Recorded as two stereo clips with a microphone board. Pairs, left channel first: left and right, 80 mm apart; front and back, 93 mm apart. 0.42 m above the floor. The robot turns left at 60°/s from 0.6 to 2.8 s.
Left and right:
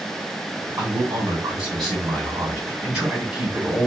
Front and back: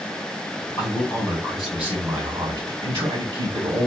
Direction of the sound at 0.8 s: 45° right.